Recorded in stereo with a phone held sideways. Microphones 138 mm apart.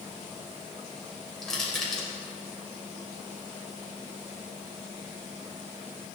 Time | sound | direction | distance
1.4 | crushing | 5° left (ahead or behind) | 3 m